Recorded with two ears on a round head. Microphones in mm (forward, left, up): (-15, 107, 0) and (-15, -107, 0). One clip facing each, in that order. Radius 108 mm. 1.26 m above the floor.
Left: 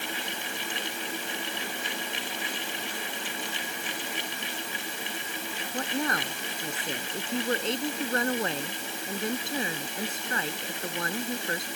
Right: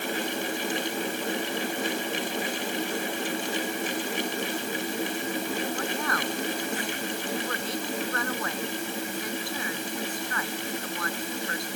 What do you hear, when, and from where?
5.7 s a woman speaking: 20° left (ahead or behind)